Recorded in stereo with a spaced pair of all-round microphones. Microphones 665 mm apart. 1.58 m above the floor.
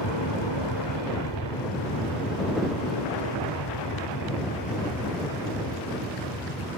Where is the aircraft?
40° left (ahead or behind); by 6.8 s 35° left (ahead or behind).